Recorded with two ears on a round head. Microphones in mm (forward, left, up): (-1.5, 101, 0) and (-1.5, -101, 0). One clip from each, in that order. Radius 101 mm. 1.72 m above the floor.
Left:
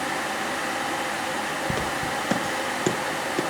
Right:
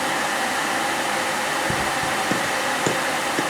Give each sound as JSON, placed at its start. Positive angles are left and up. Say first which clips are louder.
{"t": 1.7, "sound": "footsteps", "louder": "right 4 dB", "side_deg": 20, "distance_m": 1.7}